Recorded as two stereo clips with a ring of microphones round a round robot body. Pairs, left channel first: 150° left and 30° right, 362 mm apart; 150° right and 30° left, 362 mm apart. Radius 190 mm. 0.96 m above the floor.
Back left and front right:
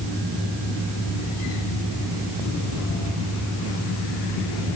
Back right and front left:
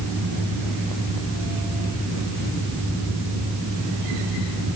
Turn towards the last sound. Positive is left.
No sound to turn to.